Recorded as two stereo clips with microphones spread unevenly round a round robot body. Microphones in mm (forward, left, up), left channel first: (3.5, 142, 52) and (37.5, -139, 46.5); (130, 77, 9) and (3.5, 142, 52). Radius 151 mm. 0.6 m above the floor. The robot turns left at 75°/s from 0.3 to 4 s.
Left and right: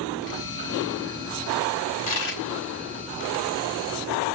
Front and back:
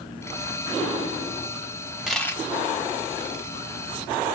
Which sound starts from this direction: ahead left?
A dropped coin, at 2.1 s.